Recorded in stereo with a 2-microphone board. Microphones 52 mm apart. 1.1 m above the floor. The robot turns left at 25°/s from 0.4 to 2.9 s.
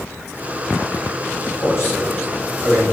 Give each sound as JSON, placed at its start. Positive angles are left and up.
{"t": 1.6, "sound": "a man speaking", "side_deg": 55, "distance_m": 2.5}